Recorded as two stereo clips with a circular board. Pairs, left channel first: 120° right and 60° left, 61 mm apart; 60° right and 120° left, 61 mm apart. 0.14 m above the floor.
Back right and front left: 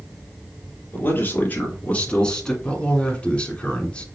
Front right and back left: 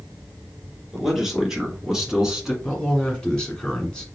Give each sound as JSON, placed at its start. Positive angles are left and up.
{"t": 0.9, "sound": "a man speaking", "azimuth_deg": -160, "distance_m": 2.5}
{"t": 2.6, "sound": "a man speaking", "azimuth_deg": -105, "distance_m": 1.3}